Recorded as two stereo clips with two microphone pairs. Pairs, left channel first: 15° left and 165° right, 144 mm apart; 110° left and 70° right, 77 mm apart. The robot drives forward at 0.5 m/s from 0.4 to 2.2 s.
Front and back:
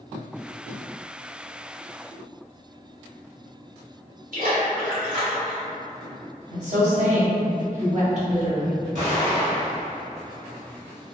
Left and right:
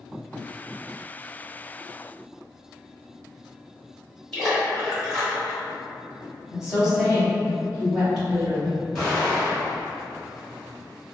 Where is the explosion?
165° right, 2.0 m.